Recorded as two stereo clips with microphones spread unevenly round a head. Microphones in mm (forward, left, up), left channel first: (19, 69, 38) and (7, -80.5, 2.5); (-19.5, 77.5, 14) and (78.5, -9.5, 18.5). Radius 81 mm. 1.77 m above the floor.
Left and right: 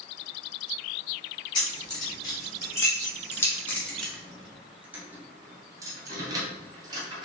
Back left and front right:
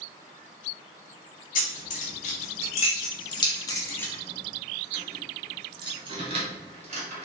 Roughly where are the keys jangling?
Behind left.